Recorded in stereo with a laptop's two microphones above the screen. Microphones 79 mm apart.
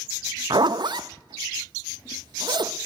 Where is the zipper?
65° right (ahead or behind), 0.5 m.